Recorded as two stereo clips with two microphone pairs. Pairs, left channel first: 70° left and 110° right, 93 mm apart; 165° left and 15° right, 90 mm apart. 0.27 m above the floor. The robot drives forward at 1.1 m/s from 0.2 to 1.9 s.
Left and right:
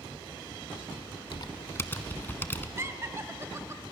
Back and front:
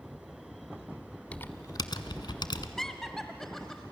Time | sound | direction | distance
1.3 | typing on a keyboard | 95° left | 0.7 m
2.8 | laughter | 115° right | 1.2 m